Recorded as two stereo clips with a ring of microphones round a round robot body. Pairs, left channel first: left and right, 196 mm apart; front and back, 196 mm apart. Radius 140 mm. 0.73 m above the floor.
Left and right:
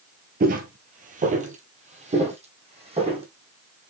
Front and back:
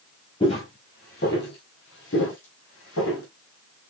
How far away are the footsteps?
About 1.0 m.